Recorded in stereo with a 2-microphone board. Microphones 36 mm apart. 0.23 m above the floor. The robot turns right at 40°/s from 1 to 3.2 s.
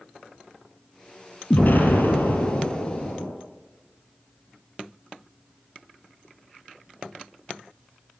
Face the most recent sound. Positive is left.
turn(degrees=120)